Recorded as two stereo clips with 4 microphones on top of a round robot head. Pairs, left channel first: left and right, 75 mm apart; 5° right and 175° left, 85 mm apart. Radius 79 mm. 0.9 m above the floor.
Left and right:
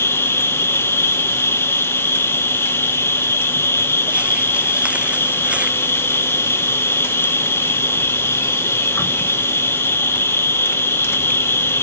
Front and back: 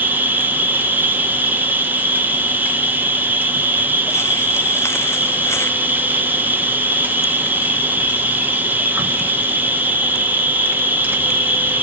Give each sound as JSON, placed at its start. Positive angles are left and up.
{"t": 0.0, "sound": "an insect", "azimuth_deg": 120, "distance_m": 1.2}